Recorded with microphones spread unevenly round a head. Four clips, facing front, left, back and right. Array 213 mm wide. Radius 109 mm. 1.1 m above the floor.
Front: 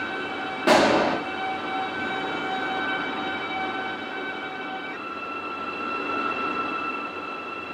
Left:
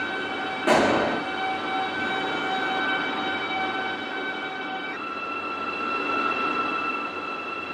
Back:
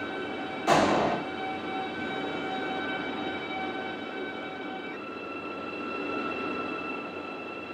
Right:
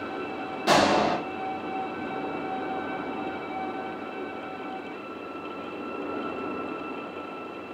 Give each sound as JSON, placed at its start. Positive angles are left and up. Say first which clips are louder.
{"t": 0.7, "sound": "a gunshot", "louder": "left 1 dB, front 5 dB", "azimuth_deg": 15, "distance_m": 0.8}